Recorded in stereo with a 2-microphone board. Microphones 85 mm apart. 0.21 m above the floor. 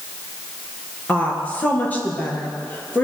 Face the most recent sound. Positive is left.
turn(degrees=20)  # may be behind; listen again after turning